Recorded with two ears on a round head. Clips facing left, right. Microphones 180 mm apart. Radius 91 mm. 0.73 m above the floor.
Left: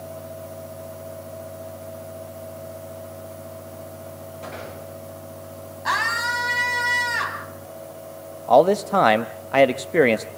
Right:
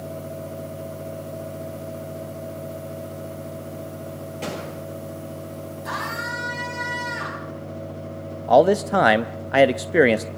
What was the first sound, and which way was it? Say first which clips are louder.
A gunshot: right 5 dB; 85° right.